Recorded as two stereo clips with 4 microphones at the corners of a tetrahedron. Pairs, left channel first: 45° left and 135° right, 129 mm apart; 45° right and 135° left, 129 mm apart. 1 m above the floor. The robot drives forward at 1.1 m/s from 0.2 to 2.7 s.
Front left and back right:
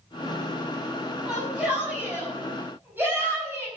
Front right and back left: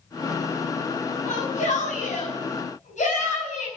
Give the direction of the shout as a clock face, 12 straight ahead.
2 o'clock.